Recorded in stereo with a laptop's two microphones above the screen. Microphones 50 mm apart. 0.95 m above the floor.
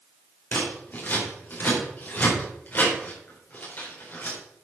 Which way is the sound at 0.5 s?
40° left (ahead or behind).